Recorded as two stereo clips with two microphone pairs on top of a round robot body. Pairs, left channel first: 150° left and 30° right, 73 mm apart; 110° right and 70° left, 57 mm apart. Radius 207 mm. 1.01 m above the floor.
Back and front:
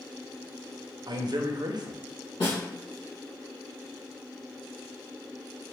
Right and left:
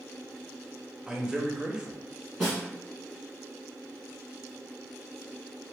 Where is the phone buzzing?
No phone buzzing in this recording.